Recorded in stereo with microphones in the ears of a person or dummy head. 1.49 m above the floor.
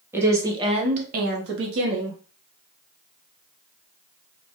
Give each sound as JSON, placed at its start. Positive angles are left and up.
{"t": 0.1, "sound": "a woman speaking", "side_deg": -15, "distance_m": 1.1}